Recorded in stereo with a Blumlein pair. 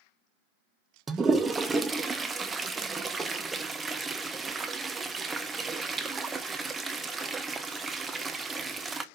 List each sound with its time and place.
1.1 s a toilet flushing: 15° right, 0.6 m